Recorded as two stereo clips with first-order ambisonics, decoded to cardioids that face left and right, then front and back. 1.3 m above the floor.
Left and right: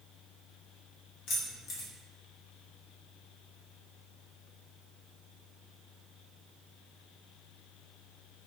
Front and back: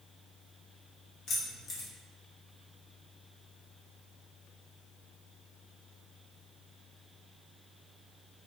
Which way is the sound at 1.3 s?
50° left.